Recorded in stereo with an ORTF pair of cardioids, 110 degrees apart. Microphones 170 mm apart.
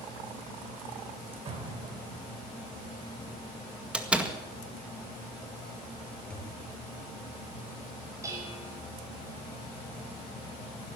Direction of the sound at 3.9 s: 5° right.